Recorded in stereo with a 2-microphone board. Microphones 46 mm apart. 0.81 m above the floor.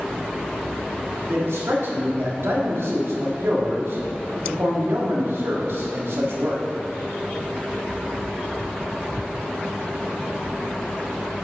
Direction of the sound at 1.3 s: 70° right (ahead or behind).